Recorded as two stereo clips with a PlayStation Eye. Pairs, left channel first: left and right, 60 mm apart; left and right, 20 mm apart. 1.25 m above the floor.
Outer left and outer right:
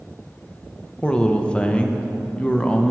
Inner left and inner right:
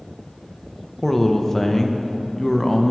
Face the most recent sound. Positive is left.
turn(degrees=15)  # may be behind; listen again after turning